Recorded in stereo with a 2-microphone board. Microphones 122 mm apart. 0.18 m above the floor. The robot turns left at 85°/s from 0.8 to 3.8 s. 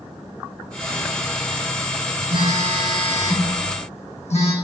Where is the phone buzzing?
130° right, 1.7 m; by 4.5 s 105° left, 1.7 m.